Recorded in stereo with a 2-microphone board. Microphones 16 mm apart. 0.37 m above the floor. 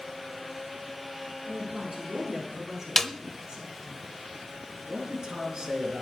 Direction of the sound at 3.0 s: 20° left (ahead or behind).